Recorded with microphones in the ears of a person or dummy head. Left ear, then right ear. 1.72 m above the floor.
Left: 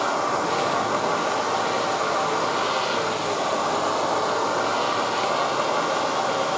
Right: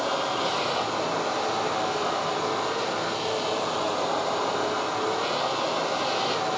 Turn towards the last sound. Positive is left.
turn(degrees=65)  # may be behind; listen again after turning